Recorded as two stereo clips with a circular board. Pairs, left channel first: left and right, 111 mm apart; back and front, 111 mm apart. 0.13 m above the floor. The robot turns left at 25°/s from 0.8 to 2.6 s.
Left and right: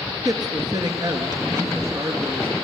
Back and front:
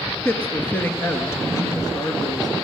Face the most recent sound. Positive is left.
turn(degrees=-160)